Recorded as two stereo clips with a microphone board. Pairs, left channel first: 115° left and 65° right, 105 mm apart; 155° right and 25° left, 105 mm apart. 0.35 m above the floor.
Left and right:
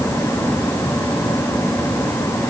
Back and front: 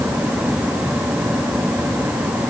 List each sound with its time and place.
Only background noise.